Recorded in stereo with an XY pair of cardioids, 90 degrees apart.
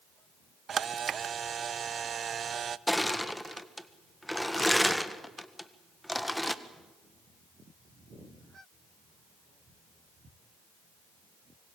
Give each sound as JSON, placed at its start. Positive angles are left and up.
{"t": 0.7, "sound": "a camera shutter", "azimuth_deg": -50, "distance_m": 0.7}
{"t": 2.9, "sound": "crushing", "azimuth_deg": 5, "distance_m": 1.5}